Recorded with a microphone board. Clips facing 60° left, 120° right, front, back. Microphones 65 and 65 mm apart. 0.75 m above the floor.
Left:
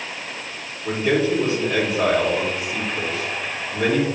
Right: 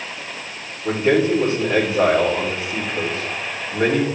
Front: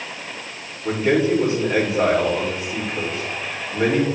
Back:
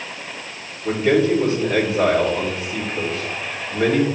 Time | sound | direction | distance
0.8 | a man speaking | 65° right | 3 m